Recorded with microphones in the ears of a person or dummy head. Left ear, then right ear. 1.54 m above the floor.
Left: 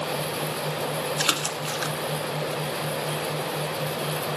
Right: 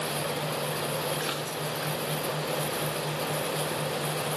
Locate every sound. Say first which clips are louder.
1.2 s a splash: left 6 dB; 80° left, 0.8 m